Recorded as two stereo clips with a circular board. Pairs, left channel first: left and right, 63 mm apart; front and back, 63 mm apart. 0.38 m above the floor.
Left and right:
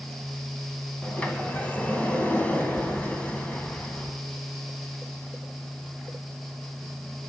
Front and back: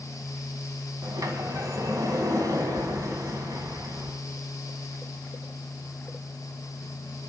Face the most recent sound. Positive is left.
turn(degrees=155)